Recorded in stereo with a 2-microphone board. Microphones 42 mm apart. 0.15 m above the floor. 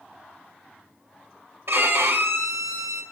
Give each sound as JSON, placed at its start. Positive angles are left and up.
{"t": 1.7, "sound": "a violin", "side_deg": -70, "distance_m": 1.4}